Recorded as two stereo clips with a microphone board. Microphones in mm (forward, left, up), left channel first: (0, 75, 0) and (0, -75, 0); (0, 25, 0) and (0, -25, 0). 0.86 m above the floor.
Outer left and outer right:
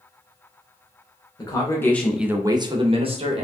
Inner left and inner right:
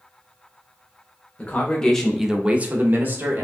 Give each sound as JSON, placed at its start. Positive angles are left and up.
{"t": 1.4, "sound": "a man speaking", "side_deg": 25, "distance_m": 1.1}